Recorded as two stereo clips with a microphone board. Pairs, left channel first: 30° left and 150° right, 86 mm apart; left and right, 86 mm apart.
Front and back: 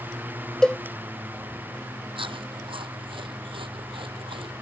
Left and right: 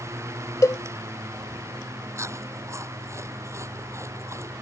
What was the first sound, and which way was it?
A cowbell, 110° left.